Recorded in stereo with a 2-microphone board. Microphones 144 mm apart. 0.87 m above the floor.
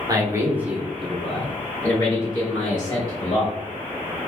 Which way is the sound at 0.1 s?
25° right (ahead or behind).